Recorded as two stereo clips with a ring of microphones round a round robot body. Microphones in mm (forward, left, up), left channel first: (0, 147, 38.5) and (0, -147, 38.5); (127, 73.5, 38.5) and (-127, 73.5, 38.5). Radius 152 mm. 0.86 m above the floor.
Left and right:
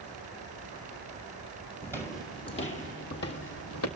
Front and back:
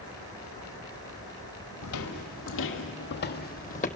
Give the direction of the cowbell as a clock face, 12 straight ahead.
I don't hear a cowbell.